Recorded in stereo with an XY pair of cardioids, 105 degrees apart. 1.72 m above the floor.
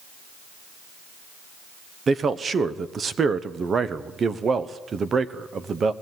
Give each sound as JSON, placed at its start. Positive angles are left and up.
{"t": 2.1, "sound": "a man speaking", "azimuth_deg": -40, "distance_m": 1.1}